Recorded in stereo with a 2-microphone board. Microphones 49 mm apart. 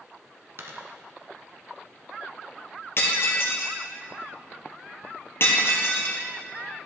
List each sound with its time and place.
0.6 s a dropped coin: 65° right (ahead or behind), 1.3 m
3.0 s breaking glass: 50° left (ahead or behind), 1.9 m